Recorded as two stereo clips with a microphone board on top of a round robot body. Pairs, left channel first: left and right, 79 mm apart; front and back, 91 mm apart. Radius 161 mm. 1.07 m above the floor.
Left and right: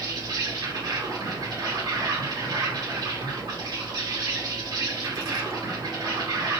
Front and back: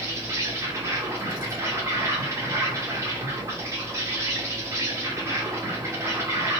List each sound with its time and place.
0.0 s an insect: 120° right, 1.6 m